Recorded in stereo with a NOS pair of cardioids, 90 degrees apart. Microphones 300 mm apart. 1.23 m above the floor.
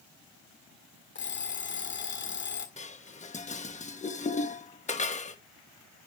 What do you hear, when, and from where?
1.1 s an alarm clock: 40° left, 1.8 m
2.8 s dishes clattering: 25° left, 1.2 m